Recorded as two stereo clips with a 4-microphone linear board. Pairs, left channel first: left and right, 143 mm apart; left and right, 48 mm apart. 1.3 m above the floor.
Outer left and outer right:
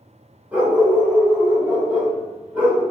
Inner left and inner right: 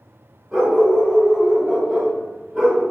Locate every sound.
0.5 s a dog barking: 10° right (ahead or behind), 1.1 m; by 2.8 s 5° right (ahead or behind), 1.1 m